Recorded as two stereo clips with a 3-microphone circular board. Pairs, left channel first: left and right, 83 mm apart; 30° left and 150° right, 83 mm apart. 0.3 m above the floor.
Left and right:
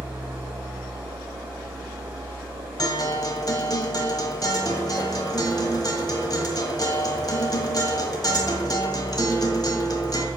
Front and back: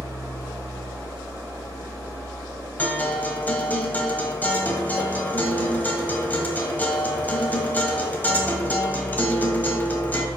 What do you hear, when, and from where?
0.0 s an engine running: 30° right, 4 m
2.8 s a guitar: 90° left, 1.1 m